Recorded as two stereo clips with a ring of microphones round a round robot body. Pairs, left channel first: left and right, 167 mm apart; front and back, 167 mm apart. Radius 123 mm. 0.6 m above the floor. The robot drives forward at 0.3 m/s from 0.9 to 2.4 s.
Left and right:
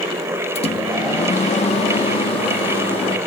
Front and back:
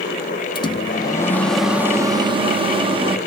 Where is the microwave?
55° left, 0.5 m; by 3.2 s 130° left, 0.6 m.